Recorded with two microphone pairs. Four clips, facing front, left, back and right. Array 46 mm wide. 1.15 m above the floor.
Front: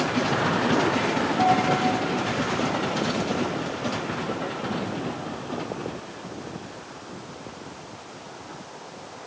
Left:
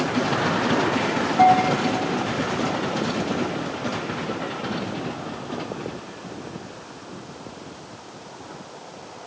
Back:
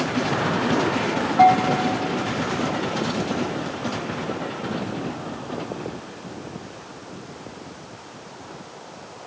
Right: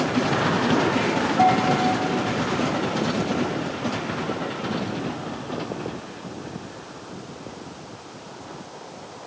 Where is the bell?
150° left, 2.5 m.